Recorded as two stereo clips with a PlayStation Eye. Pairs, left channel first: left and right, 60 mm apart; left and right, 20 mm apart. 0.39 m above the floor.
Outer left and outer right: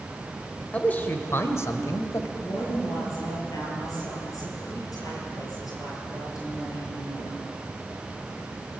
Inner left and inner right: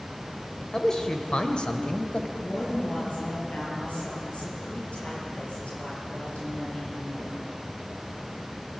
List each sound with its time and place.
0.7 s a man speaking: 20° left (ahead or behind), 1.7 m; by 2.3 s 60° left (ahead or behind), 2 m
2.4 s a woman speaking: 70° left (ahead or behind), 8.5 m